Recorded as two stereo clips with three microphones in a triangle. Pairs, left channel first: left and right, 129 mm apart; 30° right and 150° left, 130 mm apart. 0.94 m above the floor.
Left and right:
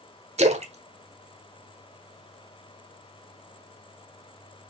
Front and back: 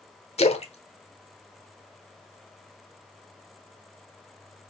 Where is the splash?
60° right, 1.2 m.